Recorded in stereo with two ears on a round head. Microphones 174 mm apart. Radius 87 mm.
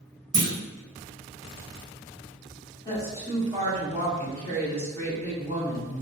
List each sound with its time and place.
0.3 s a clunk: 50° right (ahead or behind), 0.8 m
2.9 s a woman speaking: 10° left (ahead or behind), 1.7 m